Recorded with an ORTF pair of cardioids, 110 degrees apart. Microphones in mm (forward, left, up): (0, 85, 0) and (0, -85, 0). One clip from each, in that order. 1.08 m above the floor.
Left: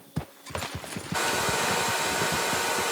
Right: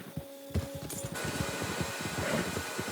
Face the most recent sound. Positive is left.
turn(degrees=60)